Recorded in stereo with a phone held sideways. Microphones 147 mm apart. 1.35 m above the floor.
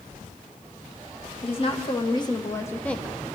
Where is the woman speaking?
40° left (ahead or behind), 1.8 m; by 3.2 s 5° right (ahead or behind), 0.8 m.